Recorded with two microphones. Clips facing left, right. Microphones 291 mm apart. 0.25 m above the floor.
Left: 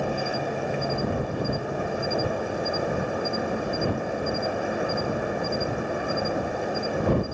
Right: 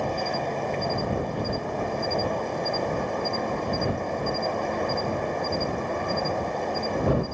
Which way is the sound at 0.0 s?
10° left (ahead or behind).